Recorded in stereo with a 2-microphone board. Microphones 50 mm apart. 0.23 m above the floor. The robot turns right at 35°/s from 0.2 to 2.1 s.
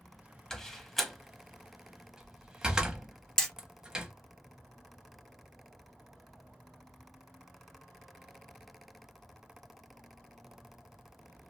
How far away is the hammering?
About 1.0 m.